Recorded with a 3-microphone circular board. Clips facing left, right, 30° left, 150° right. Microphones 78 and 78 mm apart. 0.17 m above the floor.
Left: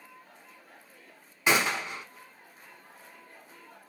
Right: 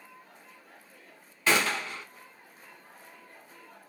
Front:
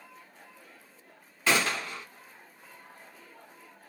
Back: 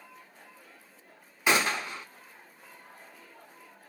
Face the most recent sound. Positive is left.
turn(degrees=150)